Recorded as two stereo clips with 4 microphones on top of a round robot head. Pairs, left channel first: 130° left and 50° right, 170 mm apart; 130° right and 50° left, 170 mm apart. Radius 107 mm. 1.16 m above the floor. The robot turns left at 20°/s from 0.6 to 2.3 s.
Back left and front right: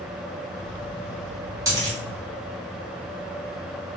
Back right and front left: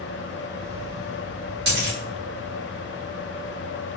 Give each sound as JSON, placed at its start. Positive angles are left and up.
{"t": 1.7, "sound": "a dropped coin", "azimuth_deg": 20, "distance_m": 1.7}